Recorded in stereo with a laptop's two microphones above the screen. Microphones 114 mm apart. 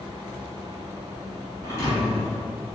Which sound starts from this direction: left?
A thud, at 1.6 s.